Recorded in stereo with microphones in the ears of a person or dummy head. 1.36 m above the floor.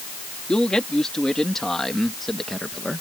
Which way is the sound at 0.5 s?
5° left (ahead or behind).